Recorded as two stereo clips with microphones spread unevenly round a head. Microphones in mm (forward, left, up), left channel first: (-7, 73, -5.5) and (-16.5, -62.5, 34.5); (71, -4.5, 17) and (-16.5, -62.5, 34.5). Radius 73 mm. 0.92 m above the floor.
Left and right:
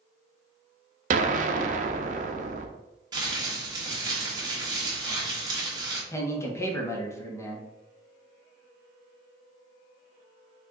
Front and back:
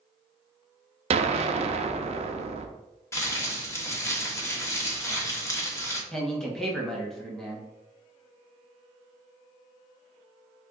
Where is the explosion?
125° right, 0.6 m.